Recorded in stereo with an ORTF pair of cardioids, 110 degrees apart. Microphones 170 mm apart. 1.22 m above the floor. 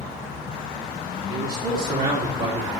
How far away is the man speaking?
About 2 m.